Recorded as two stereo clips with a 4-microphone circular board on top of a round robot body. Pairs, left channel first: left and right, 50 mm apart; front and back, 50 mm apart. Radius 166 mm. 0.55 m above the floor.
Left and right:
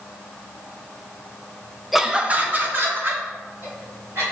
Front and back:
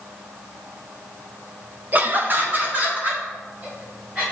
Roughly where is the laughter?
Behind.